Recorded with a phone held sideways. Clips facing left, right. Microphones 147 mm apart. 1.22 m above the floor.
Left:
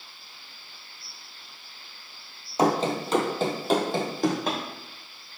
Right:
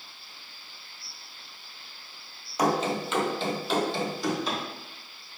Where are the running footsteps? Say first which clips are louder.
Left 2 dB; 25° left (ahead or behind), 1.3 m; by 4.6 s 60° left (ahead or behind), 2 m.